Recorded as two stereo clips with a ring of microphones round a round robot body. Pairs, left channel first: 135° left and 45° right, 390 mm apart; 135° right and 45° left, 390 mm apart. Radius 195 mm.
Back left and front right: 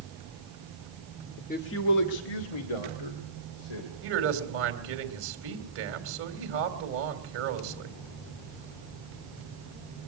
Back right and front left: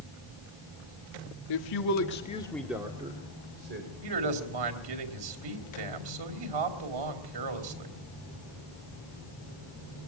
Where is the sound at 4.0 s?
15° left, 3.5 m.